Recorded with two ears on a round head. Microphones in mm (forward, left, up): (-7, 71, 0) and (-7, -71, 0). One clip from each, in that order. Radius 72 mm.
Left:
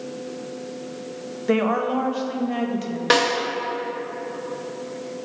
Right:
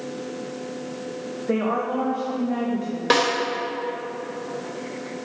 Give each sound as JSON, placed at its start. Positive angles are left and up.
{"t": 1.5, "sound": "a woman speaking", "side_deg": 80, "distance_m": 0.9}
{"t": 3.1, "sound": "a snare drum", "side_deg": 5, "distance_m": 1.3}